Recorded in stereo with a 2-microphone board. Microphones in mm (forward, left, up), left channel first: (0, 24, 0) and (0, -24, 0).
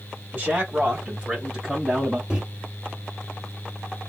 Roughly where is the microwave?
Centre.